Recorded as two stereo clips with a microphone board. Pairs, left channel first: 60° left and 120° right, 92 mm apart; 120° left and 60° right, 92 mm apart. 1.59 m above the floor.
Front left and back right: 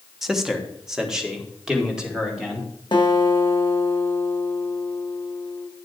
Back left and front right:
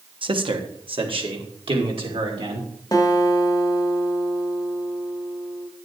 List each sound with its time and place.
0.2 s a man speaking: 35° right, 1.2 m; by 2.7 s 40° right, 3 m
2.9 s a guitar: 85° left, 1.3 m